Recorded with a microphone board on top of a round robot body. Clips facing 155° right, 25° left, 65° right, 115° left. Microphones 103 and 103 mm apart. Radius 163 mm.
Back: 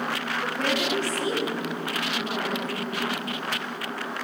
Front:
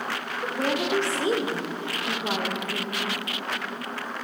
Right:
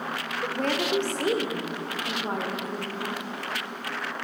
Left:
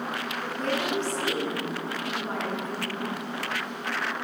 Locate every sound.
0.4 s a woman speaking: 50° right, 2 m; by 3.1 s 10° right, 2.5 m